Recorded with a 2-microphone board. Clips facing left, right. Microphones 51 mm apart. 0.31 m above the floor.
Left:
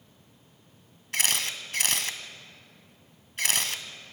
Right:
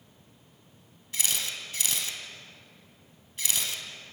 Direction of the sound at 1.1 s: 55° left (ahead or behind).